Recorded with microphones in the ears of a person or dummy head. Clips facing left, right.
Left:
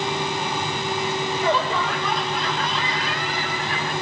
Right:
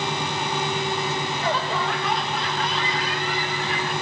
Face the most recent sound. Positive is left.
turn(degrees=45)  # may be behind; listen again after turning